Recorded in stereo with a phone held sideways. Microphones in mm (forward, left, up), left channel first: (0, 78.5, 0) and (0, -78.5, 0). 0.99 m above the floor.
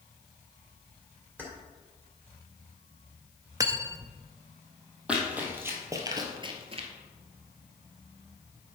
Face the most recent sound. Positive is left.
turn(degrees=-40)  # may be behind; listen again after turning